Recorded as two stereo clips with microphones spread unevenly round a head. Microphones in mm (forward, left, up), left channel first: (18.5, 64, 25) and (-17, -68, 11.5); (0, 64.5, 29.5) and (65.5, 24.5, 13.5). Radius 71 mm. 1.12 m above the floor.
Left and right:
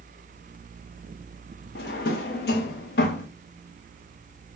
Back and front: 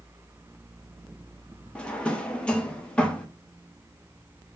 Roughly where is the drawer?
Left.